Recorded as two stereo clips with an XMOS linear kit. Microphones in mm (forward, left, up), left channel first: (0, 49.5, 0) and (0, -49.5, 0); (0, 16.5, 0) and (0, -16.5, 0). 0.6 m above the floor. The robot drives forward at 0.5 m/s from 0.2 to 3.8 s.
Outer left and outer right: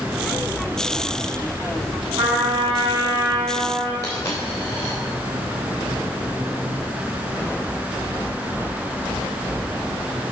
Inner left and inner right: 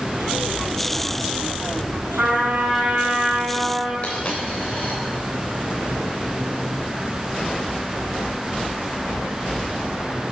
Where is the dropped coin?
30° left (ahead or behind), 6 m.